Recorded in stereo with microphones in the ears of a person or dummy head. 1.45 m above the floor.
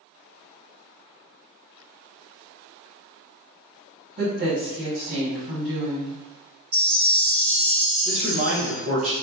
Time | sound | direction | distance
4.2 | a woman speaking | 40° right (ahead or behind) | 1.6 m
6.7 | a chime | 30° right (ahead or behind) | 1.2 m
8.1 | a man speaking | 35° right (ahead or behind) | 0.9 m